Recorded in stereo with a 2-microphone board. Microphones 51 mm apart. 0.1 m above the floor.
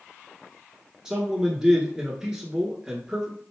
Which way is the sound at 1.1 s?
15° right (ahead or behind).